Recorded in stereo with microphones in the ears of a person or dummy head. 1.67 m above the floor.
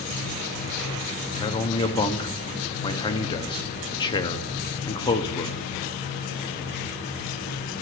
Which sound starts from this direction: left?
A man speaking, at 1.4 s.